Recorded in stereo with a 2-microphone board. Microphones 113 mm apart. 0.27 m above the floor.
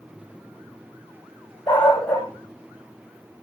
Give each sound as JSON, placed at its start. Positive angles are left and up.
{"t": 1.7, "sound": "a dog barking", "side_deg": 15, "distance_m": 5.0}